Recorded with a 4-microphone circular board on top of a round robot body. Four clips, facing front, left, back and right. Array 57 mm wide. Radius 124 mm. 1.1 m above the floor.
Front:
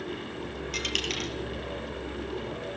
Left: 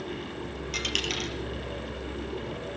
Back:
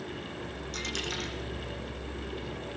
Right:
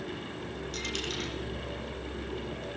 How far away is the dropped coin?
About 5 m.